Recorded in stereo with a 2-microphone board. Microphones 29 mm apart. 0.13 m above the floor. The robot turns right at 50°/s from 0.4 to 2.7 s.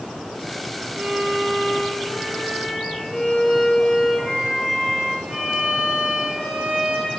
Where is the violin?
100° right, 8.5 m; by 7.1 s 15° right, 8.5 m.